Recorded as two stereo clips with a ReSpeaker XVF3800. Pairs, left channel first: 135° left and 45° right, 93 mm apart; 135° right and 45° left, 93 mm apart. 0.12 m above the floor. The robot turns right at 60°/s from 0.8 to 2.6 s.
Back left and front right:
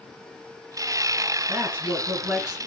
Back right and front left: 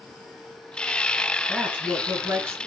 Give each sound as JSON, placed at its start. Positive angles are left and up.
{"t": 1.5, "sound": "a woman speaking", "azimuth_deg": -25, "distance_m": 1.1}